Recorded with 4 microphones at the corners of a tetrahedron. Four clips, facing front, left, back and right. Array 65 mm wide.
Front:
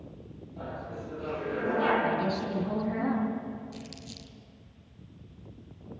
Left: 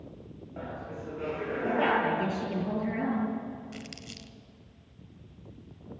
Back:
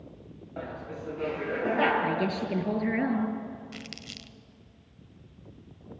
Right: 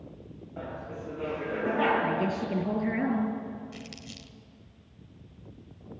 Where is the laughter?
170° left, 9 m.